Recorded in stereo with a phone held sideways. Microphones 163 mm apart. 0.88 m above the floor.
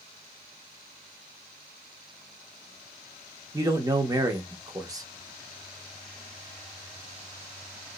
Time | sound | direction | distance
3.5 | a man speaking | 20° right (ahead or behind) | 1.0 m